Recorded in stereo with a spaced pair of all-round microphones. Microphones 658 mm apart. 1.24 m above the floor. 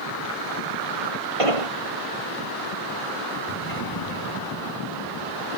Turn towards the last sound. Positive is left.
turn(degrees=30)  # may be behind; listen again after turning